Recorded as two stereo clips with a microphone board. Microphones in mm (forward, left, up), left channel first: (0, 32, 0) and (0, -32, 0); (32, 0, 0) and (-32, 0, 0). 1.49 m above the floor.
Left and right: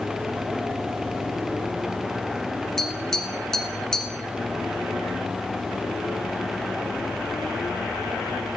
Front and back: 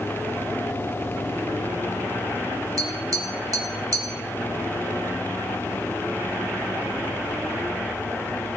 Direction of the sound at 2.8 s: 170° left.